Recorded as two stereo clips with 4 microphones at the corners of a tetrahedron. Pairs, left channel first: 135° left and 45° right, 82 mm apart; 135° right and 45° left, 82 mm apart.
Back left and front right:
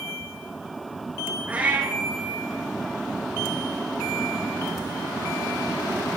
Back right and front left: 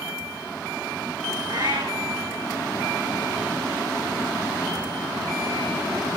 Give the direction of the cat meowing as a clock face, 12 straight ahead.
11 o'clock.